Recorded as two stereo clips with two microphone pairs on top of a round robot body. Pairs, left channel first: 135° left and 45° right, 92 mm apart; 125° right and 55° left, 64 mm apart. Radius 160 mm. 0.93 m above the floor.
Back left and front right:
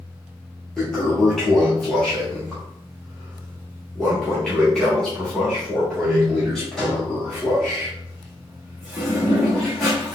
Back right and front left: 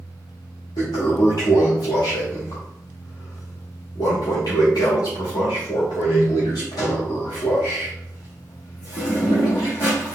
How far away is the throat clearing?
No throat clearing in this recording.